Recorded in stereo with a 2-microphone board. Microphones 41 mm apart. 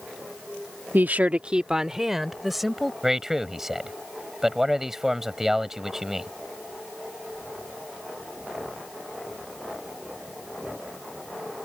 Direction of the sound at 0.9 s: 55° right (ahead or behind).